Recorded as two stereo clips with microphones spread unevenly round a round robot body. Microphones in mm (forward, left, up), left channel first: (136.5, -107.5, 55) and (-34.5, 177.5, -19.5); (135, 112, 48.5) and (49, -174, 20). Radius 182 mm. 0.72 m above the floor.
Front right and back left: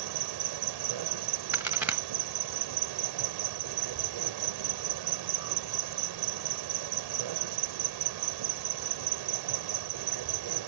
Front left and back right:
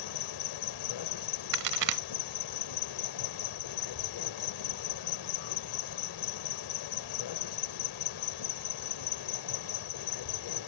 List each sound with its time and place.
0.0 s an insect: 100° left
1.5 s a crack: 145° right